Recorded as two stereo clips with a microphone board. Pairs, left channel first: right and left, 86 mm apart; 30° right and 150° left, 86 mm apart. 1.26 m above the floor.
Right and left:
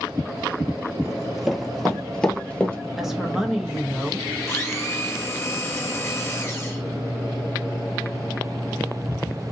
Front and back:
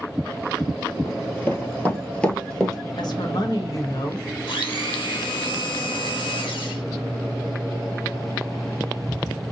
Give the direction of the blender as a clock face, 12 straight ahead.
1 o'clock.